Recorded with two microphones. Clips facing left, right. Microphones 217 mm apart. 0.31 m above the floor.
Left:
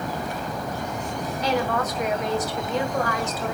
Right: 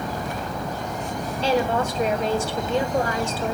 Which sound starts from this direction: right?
A woman speaking, at 1.4 s.